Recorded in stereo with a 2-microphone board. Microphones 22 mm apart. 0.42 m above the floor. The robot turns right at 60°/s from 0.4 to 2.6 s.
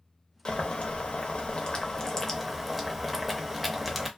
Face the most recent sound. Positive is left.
turn(degrees=-175)